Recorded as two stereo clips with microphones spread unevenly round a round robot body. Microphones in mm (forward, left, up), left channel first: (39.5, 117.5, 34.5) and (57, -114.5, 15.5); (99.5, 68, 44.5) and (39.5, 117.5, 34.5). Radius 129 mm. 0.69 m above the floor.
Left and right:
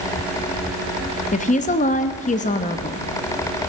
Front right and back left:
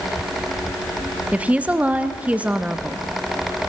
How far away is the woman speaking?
About 0.8 m.